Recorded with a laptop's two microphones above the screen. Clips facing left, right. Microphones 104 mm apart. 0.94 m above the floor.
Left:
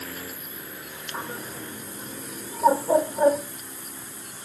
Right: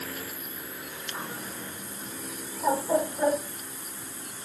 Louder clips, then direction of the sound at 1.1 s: Left 4 dB; 35° left (ahead or behind).